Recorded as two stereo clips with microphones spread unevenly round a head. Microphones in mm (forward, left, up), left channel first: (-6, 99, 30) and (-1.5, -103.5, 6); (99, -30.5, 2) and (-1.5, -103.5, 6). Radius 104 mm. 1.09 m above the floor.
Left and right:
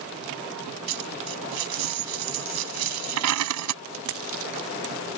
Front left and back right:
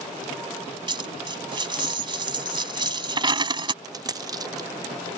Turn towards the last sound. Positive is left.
turn(degrees=-90)